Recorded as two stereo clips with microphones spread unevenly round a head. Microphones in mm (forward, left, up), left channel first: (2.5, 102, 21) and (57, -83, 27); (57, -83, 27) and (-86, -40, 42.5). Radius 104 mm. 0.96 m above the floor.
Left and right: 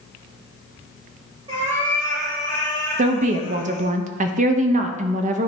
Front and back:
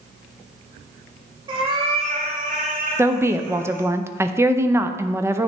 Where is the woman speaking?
120° right, 0.6 m.